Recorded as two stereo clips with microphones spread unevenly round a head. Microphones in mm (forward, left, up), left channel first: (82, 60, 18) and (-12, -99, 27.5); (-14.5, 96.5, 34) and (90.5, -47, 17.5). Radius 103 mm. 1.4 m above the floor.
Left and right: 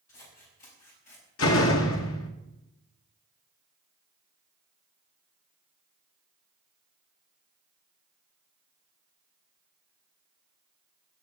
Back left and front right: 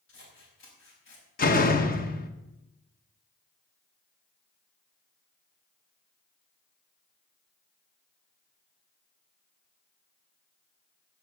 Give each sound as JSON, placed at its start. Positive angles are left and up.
{"t": 0.1, "sound": "scissors", "azimuth_deg": 115, "distance_m": 5.5}
{"t": 1.4, "sound": "a door slam", "azimuth_deg": 90, "distance_m": 1.5}